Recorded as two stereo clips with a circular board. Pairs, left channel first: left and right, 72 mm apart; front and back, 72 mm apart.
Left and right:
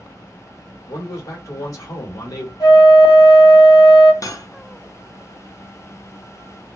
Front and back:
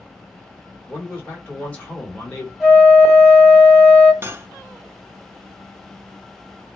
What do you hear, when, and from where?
0.9 s a man speaking: 65° left, 1.5 m
2.6 s a flute: 90° left, 1.1 m
4.2 s cutlery clinking: 125° left, 0.5 m